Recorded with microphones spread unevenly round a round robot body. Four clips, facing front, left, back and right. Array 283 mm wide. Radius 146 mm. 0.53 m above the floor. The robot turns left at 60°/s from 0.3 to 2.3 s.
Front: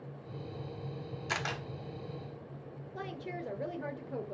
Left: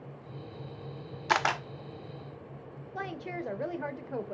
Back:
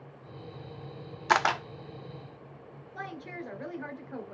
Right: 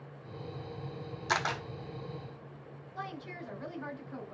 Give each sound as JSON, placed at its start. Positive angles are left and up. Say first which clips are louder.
{"t": 1.3, "sound": "a camera shutter", "louder": "left 5 dB, back 13 dB", "azimuth_deg": 155, "distance_m": 1.0}
{"t": 3.0, "sound": "a woman speaking", "louder": "left 5 dB, back 1 dB", "azimuth_deg": 60, "distance_m": 1.7}